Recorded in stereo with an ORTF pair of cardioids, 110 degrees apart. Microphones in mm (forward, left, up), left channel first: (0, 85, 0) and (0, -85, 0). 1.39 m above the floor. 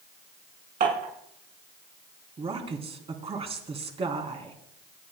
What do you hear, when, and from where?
0.8 s dishes clattering: 55° right, 9 m
2.4 s a woman speaking: 35° right, 3.5 m